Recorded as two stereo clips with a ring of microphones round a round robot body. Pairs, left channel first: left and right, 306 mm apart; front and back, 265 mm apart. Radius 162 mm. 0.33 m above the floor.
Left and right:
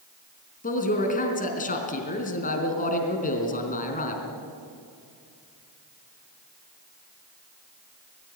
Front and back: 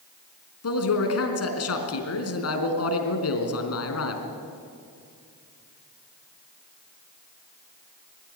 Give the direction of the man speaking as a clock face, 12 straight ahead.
11 o'clock.